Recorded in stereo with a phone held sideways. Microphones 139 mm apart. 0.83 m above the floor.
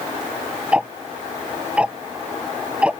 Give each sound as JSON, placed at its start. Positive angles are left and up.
{"t": 0.7, "sound": "ticking", "side_deg": -5}